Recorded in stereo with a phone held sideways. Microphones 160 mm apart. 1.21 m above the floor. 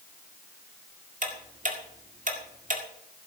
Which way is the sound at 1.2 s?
55° right (ahead or behind).